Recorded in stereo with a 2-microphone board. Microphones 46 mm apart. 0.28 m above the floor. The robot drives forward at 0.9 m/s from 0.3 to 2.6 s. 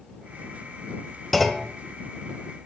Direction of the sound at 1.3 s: Centre (ahead or behind).